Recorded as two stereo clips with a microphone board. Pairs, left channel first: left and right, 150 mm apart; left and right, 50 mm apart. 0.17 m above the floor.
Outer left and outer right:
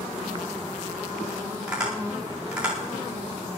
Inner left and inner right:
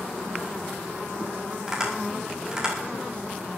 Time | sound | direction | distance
1.7 | tapping | 10° right (ahead or behind) | 9 m